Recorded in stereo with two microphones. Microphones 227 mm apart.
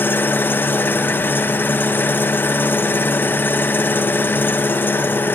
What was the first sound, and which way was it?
An engine running, 10° left (ahead or behind).